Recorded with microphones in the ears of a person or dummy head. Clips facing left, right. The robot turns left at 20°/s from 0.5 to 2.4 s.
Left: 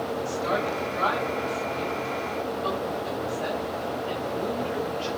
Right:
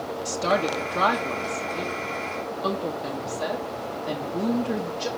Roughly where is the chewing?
I don't hear chewing.